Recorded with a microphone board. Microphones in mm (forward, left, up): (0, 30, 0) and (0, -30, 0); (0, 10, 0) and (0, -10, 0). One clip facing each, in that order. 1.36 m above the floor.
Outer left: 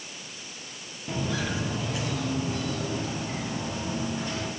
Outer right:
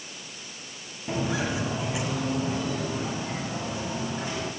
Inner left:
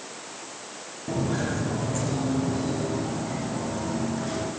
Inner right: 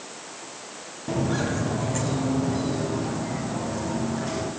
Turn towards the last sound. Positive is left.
turn(degrees=-10)  # may be behind; listen again after turning